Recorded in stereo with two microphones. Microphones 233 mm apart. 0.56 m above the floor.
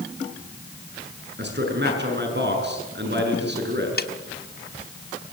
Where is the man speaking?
50° right (ahead or behind), 6.5 m.